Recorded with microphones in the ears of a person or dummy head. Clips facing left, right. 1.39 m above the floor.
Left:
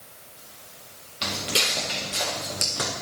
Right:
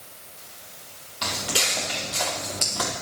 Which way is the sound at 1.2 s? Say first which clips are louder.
Even; 25° left (ahead or behind).